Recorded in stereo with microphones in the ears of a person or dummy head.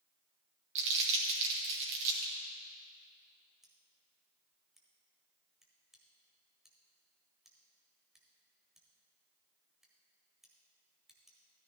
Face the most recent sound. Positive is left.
turn(degrees=-5)  # may be behind; listen again after turning